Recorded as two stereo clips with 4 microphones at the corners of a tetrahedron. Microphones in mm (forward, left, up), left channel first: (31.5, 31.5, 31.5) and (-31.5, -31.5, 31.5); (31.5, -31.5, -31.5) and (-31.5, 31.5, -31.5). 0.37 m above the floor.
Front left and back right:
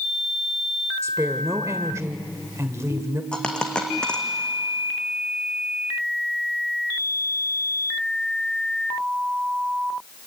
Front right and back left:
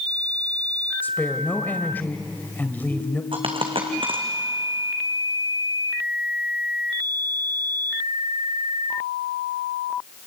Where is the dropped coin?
125° left, 3 m.